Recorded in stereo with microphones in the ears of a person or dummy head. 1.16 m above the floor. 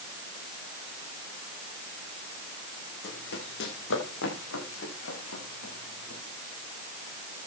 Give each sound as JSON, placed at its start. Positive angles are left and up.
{"t": 3.0, "sound": "running footsteps", "side_deg": 60, "distance_m": 5.0}